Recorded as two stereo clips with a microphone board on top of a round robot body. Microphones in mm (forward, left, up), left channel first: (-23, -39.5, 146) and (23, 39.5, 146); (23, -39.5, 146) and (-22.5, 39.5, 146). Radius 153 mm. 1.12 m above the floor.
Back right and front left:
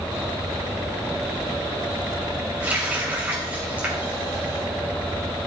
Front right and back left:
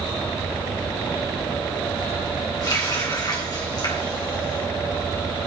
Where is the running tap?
15° right, 4 m.